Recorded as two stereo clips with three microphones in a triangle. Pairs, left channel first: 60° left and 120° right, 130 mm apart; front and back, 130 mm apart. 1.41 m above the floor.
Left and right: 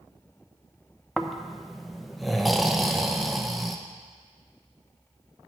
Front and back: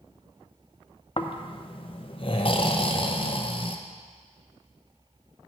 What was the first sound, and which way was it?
Snoring, 30° right.